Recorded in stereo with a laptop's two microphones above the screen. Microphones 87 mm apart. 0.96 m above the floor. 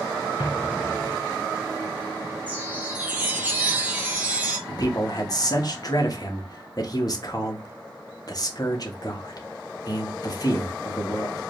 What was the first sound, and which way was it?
An explosion, 65° left (ahead or behind).